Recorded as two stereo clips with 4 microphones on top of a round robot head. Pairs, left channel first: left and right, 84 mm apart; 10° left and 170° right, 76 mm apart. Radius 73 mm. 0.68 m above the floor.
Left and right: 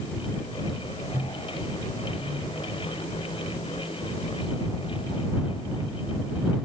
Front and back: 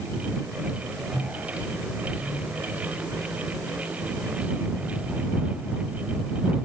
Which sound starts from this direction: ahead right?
A microwave, at 1.1 s.